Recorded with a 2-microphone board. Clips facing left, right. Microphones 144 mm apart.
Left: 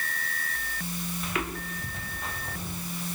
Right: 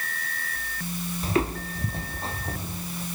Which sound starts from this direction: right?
Footsteps, at 1.2 s.